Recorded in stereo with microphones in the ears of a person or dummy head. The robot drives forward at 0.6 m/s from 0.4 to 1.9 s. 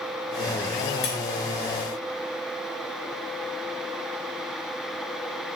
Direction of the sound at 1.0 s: 70° left (ahead or behind).